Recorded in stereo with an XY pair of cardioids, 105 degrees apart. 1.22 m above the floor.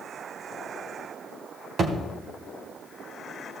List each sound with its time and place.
1.8 s a thud: 50° right, 2.0 m